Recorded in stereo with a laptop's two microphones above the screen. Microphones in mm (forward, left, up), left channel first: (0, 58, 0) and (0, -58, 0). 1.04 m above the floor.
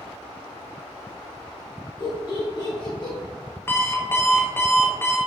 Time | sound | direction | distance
2.0 | laughter | 35° left (ahead or behind) | 1.5 m
3.7 | an alarm clock | 20° left (ahead or behind) | 0.6 m